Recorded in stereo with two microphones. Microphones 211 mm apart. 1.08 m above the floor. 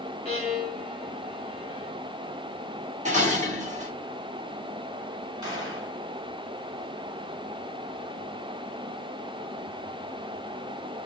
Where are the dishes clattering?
35° right (ahead or behind), 2.5 m.